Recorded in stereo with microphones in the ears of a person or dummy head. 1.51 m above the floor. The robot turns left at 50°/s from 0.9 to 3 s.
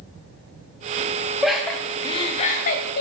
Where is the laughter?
5° right (ahead or behind), 0.6 m; by 3.0 s 60° left (ahead or behind), 0.6 m.